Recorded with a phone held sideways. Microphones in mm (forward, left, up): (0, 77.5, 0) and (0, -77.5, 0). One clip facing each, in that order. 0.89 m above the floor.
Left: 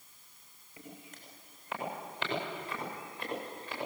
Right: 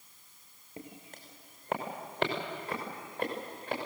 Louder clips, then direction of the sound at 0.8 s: Right 3 dB; 50° right (ahead or behind).